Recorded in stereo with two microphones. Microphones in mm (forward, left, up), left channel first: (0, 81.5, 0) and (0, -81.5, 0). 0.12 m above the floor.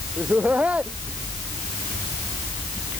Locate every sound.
0.2 s laughter: 10° right (ahead or behind); by 3.0 s centre (ahead or behind)